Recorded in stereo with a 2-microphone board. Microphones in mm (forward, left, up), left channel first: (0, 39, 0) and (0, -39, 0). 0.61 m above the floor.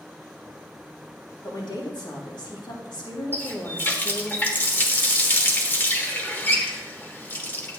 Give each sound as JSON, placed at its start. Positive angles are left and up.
{"t": 1.4, "sound": "a woman speaking", "side_deg": 70, "distance_m": 3.0}
{"t": 3.3, "sound": "a running tap", "side_deg": 25, "distance_m": 1.2}